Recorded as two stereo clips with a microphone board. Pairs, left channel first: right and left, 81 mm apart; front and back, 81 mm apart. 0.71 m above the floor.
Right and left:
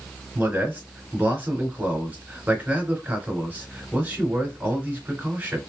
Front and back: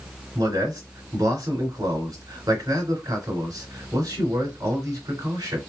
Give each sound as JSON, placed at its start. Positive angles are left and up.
{"t": 0.3, "sound": "a man speaking", "azimuth_deg": 155, "distance_m": 2.0}